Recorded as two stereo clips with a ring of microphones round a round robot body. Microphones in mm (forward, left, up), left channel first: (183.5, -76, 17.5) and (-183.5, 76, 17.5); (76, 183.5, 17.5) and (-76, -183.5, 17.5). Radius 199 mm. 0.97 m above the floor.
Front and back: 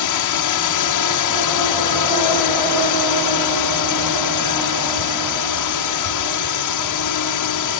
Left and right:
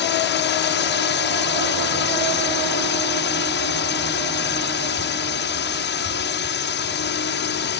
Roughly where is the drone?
Ahead.